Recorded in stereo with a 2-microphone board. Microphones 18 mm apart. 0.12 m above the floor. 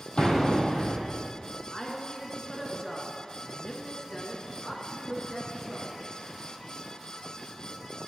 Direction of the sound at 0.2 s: 55° left (ahead or behind).